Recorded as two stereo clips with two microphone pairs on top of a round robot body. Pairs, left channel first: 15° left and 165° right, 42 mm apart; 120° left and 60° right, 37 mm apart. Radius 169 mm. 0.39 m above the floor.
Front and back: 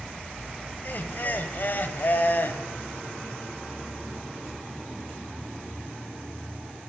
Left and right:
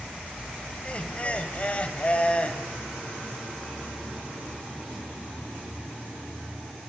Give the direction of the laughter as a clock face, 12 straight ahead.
10 o'clock.